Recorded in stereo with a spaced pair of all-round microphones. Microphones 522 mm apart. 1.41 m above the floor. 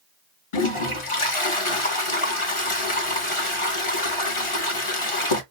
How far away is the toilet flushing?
About 0.8 m.